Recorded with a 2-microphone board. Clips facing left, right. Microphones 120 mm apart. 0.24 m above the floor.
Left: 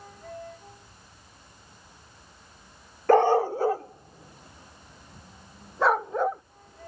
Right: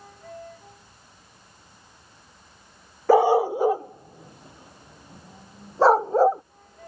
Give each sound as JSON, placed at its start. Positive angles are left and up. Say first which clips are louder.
{"t": 3.1, "sound": "a dog barking", "louder": "right 2 dB", "side_deg": -10}